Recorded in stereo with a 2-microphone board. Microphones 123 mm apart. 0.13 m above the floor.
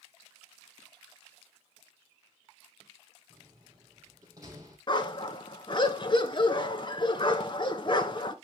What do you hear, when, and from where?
3.3 s a door slam: 30° right (ahead or behind), 3 m
4.9 s a dog barking: 40° left (ahead or behind), 0.7 m